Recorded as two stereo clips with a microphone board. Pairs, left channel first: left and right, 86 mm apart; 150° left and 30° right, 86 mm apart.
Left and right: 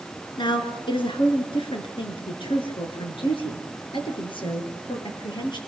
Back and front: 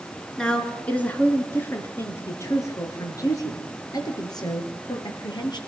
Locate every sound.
0.4 s a woman speaking: 70° left, 5 m; by 5.6 s 115° left, 8 m